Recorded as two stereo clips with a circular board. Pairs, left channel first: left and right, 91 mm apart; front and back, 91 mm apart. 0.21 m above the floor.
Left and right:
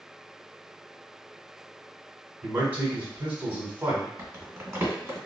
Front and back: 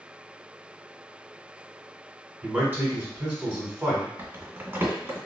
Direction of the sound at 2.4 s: 140° right.